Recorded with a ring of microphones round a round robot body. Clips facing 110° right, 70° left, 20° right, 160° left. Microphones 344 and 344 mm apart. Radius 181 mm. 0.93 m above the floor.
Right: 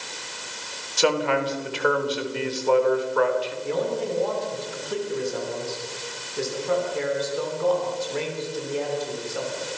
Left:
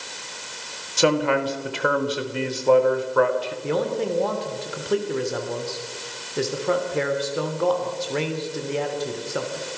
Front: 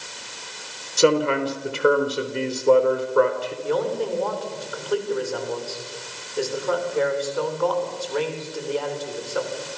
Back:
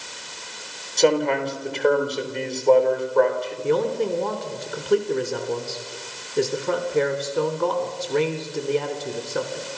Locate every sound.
1.0 s a man speaking: 55° left, 3.5 m
3.6 s a man speaking: 95° left, 3 m